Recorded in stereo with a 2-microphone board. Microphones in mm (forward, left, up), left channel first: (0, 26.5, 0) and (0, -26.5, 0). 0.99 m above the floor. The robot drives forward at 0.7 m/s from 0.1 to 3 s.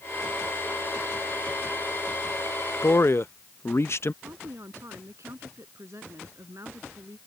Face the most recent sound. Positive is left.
turn(degrees=-65)  # may be behind; listen again after turning